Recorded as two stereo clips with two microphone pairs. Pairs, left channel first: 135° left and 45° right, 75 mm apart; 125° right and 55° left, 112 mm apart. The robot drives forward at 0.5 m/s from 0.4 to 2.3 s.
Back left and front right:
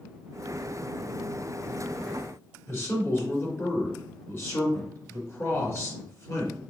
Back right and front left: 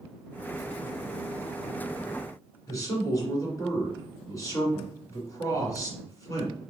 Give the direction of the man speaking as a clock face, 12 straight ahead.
6 o'clock.